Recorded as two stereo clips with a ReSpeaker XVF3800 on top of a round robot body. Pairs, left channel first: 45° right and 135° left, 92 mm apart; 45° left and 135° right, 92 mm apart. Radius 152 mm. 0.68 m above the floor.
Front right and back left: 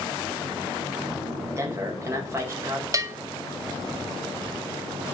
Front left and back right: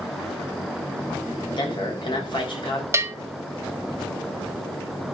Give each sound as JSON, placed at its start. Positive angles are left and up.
{"t": 1.5, "sound": "a man speaking", "azimuth_deg": 75, "distance_m": 4.5}
{"t": 2.9, "sound": "a bell", "azimuth_deg": 175, "distance_m": 1.4}